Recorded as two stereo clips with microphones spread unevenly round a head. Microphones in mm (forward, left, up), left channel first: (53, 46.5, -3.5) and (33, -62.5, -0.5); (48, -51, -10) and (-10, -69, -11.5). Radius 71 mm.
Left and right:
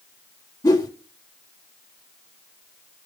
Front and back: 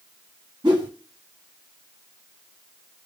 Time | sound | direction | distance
0.6 | a whoosh | 150° left | 1.6 m